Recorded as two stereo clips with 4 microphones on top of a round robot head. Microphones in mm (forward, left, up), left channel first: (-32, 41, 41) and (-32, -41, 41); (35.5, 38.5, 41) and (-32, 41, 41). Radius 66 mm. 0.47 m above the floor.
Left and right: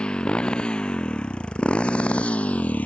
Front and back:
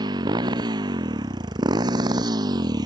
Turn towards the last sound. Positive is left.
turn(degrees=160)